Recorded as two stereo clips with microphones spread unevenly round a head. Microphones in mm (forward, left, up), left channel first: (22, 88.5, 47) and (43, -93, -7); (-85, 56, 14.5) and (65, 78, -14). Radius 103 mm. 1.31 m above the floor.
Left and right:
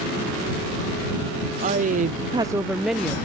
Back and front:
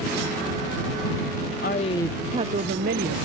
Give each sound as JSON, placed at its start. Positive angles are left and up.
{"t": 1.6, "sound": "a woman speaking", "azimuth_deg": -125}